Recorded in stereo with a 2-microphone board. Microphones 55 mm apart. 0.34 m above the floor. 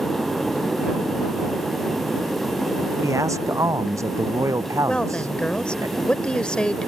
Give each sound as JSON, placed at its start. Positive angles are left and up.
{"t": 3.0, "sound": "a man speaking", "side_deg": -70}
{"t": 4.9, "sound": "a woman speaking", "side_deg": 15}